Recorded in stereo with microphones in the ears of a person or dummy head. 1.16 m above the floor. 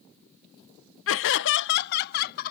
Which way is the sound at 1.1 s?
60° left (ahead or behind).